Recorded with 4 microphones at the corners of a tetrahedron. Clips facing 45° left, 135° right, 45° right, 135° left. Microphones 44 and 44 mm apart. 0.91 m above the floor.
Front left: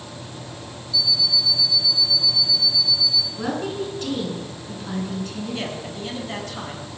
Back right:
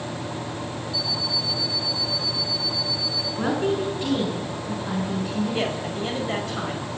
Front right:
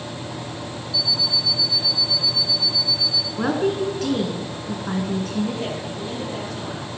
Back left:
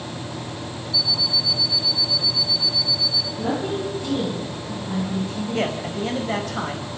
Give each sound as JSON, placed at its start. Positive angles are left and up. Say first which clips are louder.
{"t": 0.9, "sound": "an alarm clock", "louder": "front left 7 dB, even", "azimuth_deg": -80, "distance_m": 1.2}
{"t": 3.4, "sound": "a woman speaking", "louder": "back right 6 dB, front right 4 dB", "azimuth_deg": -60, "distance_m": 8.5}
{"t": 5.5, "sound": "a man speaking", "louder": "back right 4 dB, back left 4 dB", "azimuth_deg": 160, "distance_m": 5.5}